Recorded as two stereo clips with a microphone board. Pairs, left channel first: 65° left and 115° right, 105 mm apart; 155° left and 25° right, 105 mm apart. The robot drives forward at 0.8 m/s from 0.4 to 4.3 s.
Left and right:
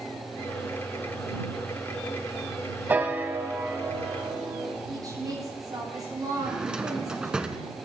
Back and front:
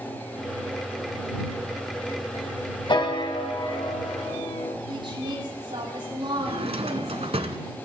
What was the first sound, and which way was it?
A piano, straight behind.